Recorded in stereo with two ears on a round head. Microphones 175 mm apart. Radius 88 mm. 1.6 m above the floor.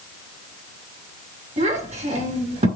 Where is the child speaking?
35° right (ahead or behind), 6.5 m.